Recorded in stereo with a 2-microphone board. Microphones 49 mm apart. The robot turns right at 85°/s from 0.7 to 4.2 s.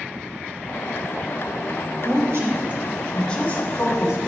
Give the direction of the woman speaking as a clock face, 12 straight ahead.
3 o'clock.